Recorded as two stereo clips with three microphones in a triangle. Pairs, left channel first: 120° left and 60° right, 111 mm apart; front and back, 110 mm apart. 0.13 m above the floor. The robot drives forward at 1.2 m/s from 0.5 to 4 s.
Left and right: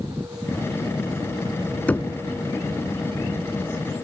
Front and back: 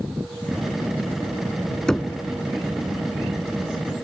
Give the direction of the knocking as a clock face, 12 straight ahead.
10 o'clock.